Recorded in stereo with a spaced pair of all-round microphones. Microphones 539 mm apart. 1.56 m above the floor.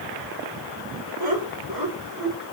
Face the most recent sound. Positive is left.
turn(degrees=-30)  # may be behind; listen again after turning